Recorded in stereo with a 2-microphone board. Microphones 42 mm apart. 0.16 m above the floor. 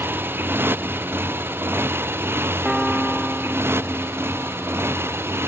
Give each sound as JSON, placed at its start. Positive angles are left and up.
{"t": 0.0, "sound": "a motorcycle", "side_deg": -60}
{"t": 2.6, "sound": "a piano", "side_deg": -15}